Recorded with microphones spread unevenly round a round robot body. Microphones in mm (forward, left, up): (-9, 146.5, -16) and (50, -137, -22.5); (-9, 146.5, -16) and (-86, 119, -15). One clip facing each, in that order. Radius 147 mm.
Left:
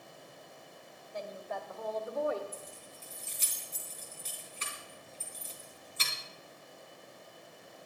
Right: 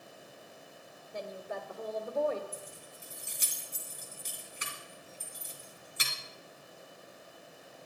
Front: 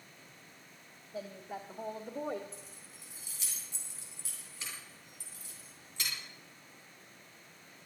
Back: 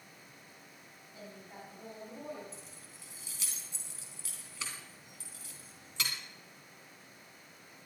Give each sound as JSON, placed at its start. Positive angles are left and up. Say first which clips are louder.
{"t": 1.1, "sound": "a woman speaking", "louder": "right 1 dB, front 8 dB", "azimuth_deg": -25, "distance_m": 1.7}
{"t": 2.5, "sound": "keys jangling", "louder": "right 1 dB, even", "azimuth_deg": -155, "distance_m": 2.5}